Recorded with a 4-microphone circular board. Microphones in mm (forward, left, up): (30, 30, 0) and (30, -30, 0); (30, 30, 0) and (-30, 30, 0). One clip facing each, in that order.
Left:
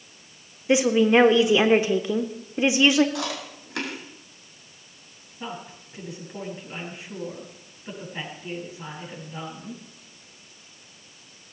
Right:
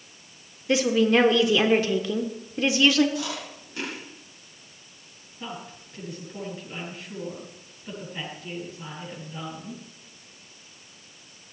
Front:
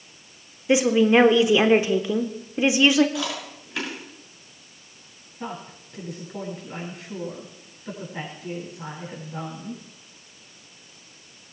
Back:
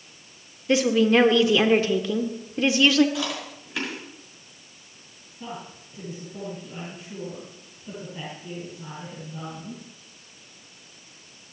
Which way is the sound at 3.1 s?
90° left.